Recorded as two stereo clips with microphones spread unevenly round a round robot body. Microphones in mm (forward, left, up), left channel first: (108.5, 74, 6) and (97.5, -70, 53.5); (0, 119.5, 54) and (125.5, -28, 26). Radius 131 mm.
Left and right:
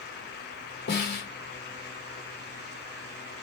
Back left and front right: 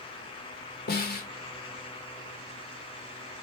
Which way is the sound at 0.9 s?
85° left.